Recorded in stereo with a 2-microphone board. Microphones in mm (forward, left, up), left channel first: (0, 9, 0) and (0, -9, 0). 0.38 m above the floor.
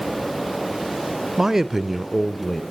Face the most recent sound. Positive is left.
turn(degrees=15)  # may be behind; listen again after turning